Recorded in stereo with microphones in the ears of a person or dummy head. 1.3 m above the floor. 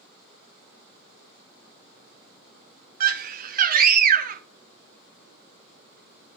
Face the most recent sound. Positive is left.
turn(degrees=-45)  # may be behind; listen again after turning